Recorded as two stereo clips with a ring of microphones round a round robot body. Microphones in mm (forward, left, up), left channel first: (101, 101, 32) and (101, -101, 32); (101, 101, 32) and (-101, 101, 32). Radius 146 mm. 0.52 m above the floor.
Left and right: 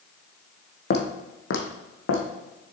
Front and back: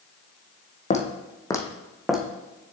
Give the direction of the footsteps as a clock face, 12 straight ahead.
10 o'clock.